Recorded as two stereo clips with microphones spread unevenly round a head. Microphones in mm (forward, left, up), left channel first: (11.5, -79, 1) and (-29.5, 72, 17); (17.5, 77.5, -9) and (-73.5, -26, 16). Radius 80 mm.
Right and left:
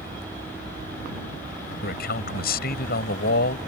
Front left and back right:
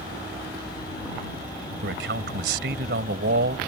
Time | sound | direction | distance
1.8 | a man speaking | 105° right | ?